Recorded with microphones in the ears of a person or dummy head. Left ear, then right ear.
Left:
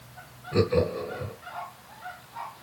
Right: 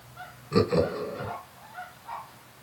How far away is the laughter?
About 1.3 m.